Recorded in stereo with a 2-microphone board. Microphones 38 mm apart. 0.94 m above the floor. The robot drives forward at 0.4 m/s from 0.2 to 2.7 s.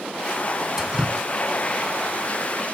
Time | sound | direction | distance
0.8 | dripping | 10° right (ahead or behind) | ?